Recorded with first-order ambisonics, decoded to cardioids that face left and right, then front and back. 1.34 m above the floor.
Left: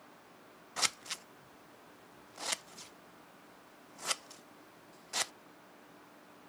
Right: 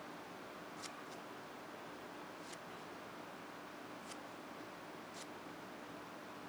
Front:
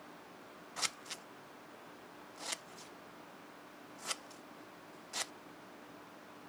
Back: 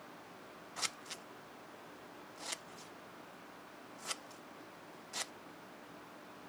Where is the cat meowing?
No cat meowing in this recording.